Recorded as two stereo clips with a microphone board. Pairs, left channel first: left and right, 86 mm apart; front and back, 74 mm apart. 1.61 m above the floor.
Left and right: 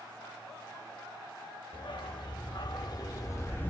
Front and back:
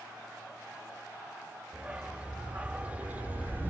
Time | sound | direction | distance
1.7 | a dog barking | 105° left | 3 m